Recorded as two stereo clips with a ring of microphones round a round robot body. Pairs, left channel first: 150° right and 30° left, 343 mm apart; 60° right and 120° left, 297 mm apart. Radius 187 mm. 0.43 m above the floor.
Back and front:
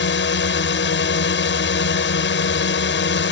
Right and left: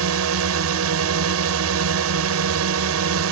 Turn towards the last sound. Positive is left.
turn(degrees=155)